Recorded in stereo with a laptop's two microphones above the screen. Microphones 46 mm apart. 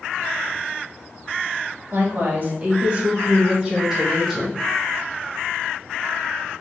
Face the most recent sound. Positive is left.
turn(degrees=0)  # may be behind; listen again after turning